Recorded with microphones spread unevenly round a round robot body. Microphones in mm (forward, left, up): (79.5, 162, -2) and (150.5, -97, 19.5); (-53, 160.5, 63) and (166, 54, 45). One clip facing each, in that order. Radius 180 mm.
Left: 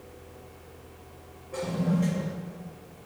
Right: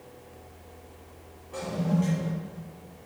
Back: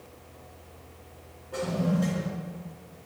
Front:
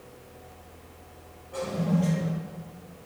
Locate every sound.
1.5 s a toilet flushing: 145° right, 1.5 m